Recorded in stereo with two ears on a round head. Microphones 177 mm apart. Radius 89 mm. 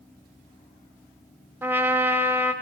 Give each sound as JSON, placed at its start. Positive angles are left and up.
{"t": 1.6, "sound": "a trumpet", "side_deg": -10, "distance_m": 1.0}